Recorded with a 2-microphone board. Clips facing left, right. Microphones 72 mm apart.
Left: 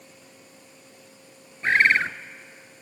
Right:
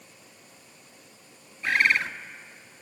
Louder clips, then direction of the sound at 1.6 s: Left 4 dB; 35° left (ahead or behind).